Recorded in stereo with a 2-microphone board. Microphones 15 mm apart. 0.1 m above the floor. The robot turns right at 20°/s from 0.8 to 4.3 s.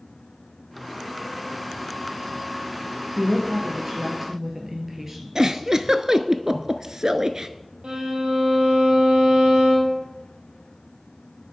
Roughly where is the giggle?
Right.